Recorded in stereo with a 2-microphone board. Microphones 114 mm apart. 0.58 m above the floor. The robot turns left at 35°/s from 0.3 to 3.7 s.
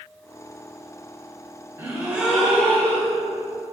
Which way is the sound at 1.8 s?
160° right.